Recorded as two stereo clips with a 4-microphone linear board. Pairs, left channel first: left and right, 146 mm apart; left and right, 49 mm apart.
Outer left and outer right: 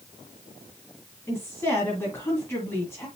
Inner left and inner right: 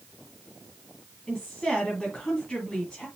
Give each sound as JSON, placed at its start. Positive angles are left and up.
{"t": 1.3, "sound": "a woman speaking", "side_deg": 15, "distance_m": 2.0}